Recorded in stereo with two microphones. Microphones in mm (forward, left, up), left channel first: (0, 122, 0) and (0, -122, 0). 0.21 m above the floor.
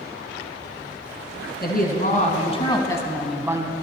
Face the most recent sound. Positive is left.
turn(degrees=-20)  # may be behind; listen again after turning